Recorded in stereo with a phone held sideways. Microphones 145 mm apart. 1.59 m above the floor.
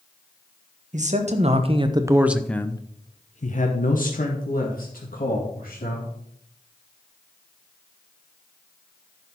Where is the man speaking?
55° right (ahead or behind), 1.6 m; by 6.1 s 85° left, 3 m.